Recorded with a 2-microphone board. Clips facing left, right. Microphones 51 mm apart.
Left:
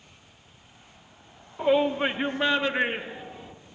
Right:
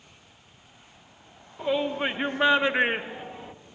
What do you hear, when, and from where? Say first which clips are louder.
1.6 s a shout: left 4 dB; 20° left (ahead or behind), 0.9 m; by 3.5 s 45° right (ahead or behind), 1.5 m